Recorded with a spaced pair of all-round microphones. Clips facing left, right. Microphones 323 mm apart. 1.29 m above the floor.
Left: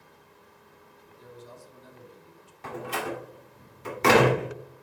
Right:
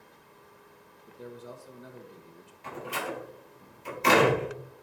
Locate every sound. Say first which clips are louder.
1.1 s a man speaking: right 5 dB; 65° right (ahead or behind), 1.5 m
2.6 s a door slam: left 3 dB; 80° left, 2.5 m